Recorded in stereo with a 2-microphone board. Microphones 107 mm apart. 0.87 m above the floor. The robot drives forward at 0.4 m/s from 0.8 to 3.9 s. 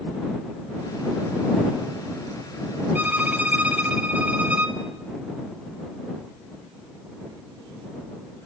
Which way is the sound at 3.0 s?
15° right (ahead or behind).